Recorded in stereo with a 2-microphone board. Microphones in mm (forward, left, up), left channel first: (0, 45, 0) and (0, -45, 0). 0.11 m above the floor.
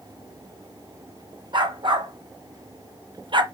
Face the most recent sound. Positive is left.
turn(degrees=-60)  # may be behind; listen again after turning